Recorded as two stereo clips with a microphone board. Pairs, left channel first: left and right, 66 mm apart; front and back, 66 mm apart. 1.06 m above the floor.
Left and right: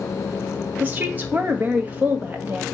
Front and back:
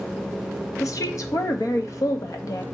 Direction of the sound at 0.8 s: 30° right.